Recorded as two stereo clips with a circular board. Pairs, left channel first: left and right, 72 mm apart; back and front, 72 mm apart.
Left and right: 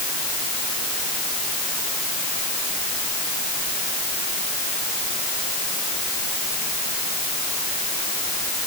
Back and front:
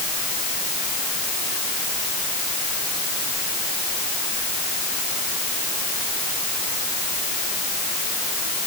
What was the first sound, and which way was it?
Only background noise.